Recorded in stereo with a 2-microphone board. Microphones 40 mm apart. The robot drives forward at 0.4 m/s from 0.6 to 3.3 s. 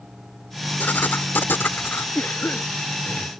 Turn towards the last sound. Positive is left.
turn(degrees=50)  # may be behind; listen again after turning